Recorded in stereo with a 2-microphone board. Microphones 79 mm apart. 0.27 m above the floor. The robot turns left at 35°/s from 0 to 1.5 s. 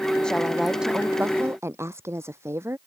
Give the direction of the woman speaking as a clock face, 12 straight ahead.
12 o'clock.